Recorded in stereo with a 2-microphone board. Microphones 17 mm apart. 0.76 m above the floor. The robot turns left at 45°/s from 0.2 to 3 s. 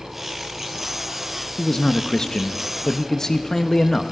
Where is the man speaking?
20° left (ahead or behind), 0.6 m; by 4.1 s 25° left (ahead or behind), 0.6 m.